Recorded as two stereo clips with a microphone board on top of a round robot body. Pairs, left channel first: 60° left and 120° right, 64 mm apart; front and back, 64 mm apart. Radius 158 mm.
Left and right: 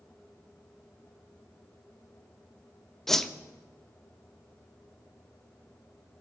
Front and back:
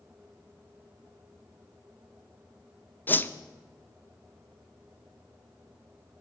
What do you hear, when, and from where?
3.1 s a whoosh: 20° right, 0.8 m